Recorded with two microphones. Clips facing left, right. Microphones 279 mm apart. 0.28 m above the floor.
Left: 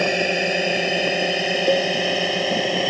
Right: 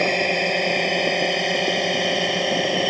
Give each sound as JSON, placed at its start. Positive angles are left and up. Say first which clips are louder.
{"t": 0.0, "sound": "a drone", "louder": "left 1 dB", "side_deg": 10}
{"t": 1.7, "sound": "a cowbell", "louder": "left 4 dB", "side_deg": 70}